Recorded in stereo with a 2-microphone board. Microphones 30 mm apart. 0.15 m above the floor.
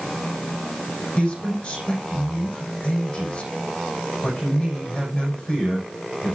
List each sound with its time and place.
1.2 s a man speaking: 30° left (ahead or behind), 7 m